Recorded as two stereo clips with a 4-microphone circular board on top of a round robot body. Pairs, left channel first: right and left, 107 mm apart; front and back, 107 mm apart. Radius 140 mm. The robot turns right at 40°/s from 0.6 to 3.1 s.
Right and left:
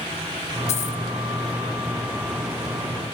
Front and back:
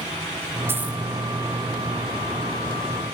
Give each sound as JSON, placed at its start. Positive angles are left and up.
{"t": 0.7, "sound": "a dropped coin", "azimuth_deg": -110, "distance_m": 1.8}